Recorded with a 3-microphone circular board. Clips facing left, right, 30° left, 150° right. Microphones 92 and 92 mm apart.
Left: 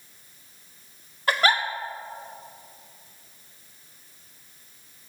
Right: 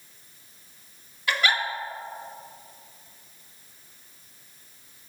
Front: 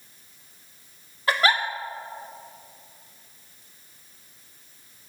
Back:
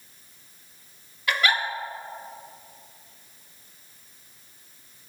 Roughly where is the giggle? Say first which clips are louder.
Left 3 dB, front 2 dB; ahead left.